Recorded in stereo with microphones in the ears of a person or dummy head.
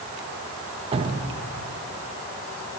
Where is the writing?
No writing in this recording.